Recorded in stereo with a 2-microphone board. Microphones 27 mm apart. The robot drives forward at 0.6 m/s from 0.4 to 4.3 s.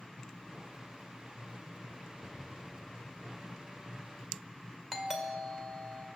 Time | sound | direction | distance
2.2 | an explosion | 45° right (ahead or behind) | 5 m
4.9 | a doorbell | 10° right (ahead or behind) | 1.3 m